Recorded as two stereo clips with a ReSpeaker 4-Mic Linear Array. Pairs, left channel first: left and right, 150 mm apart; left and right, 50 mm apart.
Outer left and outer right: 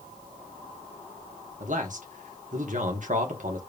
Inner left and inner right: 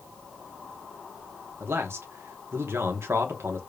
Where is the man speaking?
60° right (ahead or behind), 1.0 m.